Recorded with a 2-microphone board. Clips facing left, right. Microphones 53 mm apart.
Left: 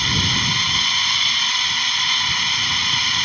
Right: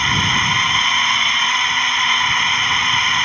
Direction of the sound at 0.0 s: 30° right (ahead or behind).